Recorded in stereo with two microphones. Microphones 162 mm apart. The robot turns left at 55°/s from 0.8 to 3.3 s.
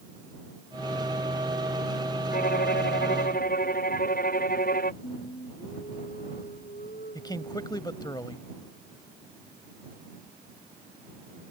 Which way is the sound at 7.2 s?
25° left (ahead or behind).